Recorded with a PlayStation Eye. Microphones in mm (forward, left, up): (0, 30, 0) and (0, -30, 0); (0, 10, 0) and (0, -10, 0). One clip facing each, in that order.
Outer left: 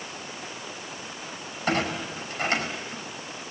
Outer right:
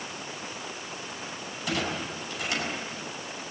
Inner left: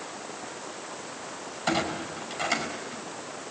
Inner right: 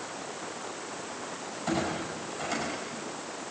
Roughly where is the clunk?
Left.